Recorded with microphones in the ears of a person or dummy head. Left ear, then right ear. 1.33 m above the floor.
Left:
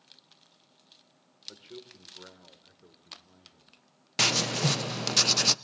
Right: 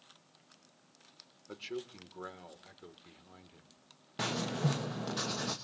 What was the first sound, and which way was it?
A man speaking, 75° right (ahead or behind).